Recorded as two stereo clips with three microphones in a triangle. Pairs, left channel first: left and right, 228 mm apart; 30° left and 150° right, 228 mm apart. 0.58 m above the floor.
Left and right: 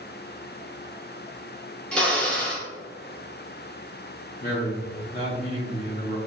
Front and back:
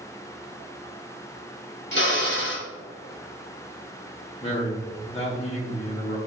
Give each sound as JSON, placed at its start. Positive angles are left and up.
{"t": 1.9, "sound": "a drill", "azimuth_deg": 5, "distance_m": 0.8}
{"t": 4.4, "sound": "a man speaking", "azimuth_deg": 75, "distance_m": 1.0}